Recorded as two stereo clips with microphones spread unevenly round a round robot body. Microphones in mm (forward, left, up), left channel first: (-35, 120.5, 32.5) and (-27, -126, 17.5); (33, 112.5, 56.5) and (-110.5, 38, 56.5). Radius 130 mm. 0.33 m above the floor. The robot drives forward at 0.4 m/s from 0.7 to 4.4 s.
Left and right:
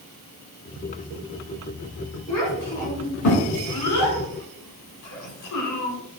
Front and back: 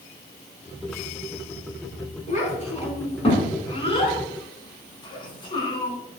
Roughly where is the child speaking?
Left.